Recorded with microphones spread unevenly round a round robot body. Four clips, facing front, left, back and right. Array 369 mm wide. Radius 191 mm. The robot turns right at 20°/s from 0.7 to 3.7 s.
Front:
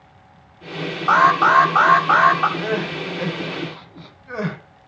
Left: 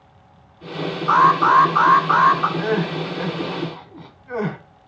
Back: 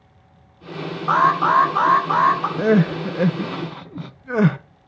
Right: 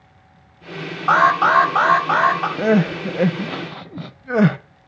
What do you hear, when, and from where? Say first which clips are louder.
1.1 s an alarm: even, front 2 dB; 70° right, 5 m; by 2.5 s 40° right, 5 m
2.6 s crying: right 4 dB, back 6 dB; 140° right, 0.6 m; by 4.6 s 120° right, 0.6 m